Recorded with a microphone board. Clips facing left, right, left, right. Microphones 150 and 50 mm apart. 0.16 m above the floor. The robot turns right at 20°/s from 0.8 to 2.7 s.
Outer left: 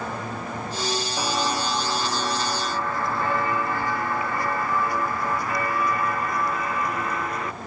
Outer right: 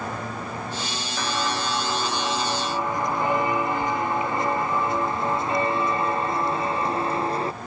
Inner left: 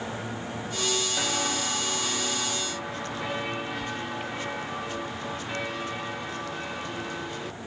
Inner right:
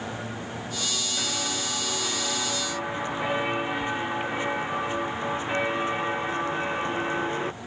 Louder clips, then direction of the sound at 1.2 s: Outer right 1 dB, inner left 2 dB; 15° left (ahead or behind).